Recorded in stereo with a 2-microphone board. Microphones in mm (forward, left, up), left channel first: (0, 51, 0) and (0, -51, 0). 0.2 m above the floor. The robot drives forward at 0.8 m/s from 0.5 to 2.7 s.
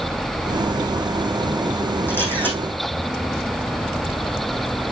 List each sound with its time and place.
2.1 s a camera shutter: 20° left (ahead or behind), 5 m